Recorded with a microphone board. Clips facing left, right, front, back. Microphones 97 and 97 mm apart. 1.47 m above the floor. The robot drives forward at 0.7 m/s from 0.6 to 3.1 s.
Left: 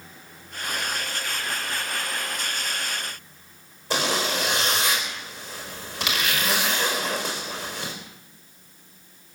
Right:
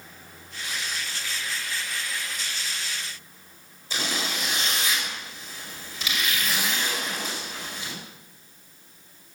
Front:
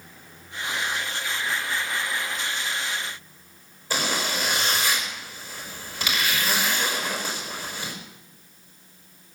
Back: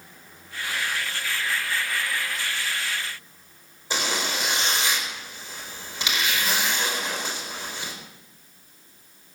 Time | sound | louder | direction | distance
3.9 | a zipper | left 6 dB, front 1 dB | 110° left | 4.5 m